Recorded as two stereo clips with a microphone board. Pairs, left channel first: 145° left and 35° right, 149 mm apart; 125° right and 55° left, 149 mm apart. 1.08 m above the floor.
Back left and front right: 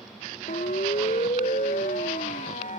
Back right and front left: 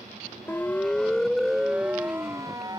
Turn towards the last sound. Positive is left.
turn(degrees=115)